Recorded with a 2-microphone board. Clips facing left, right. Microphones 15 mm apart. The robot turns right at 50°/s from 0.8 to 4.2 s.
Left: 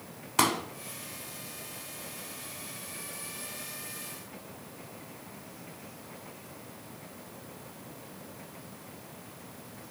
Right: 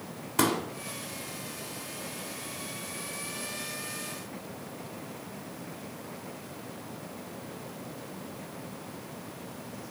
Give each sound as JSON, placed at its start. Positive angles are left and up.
{"t": 0.4, "sound": "a pop", "side_deg": 30, "distance_m": 1.6}